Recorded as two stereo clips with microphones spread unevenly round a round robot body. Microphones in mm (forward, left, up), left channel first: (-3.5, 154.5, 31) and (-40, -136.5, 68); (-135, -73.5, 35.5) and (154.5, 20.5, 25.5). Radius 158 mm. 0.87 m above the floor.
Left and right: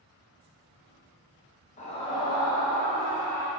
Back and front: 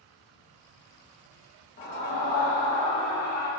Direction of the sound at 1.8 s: 140° left.